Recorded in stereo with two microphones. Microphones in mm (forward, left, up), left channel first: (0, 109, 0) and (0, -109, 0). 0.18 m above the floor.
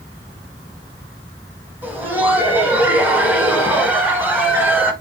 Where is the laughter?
10° right (ahead or behind), 1.1 m.